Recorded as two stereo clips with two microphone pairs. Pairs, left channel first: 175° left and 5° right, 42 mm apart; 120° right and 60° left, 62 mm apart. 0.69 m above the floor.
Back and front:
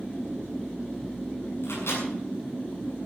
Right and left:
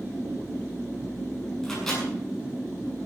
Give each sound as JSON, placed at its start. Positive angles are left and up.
{"t": 1.6, "sound": "a microwave", "azimuth_deg": 160, "distance_m": 7.5}